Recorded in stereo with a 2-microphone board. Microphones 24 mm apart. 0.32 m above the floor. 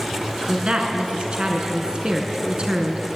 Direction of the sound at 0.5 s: 45° right (ahead or behind).